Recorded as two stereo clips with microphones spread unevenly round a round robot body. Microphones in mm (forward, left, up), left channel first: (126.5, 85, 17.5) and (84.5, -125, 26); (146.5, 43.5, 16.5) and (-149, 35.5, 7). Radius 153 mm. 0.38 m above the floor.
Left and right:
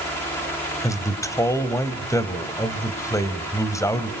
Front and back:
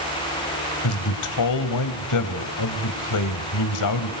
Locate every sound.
0.8 s a man speaking: 5° left, 2.5 m